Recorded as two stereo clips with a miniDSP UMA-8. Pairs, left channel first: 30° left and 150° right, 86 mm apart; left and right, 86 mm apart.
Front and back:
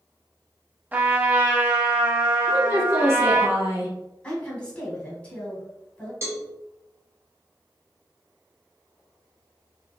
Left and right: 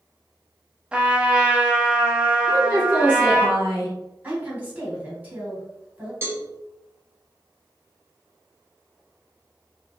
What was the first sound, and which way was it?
A trumpet, 140° right.